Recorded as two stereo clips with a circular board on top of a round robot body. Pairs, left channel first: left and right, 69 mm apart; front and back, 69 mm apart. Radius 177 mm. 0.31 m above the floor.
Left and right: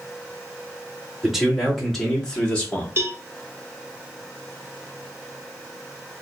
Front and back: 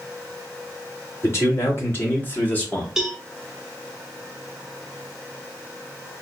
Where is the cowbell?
100° right, 0.9 m.